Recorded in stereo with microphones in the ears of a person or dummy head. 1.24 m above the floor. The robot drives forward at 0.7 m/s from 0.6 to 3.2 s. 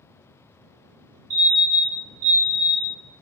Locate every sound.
1.3 s a fire alarm: 35° right (ahead or behind), 3.5 m; by 3.0 s 50° right (ahead or behind), 2.5 m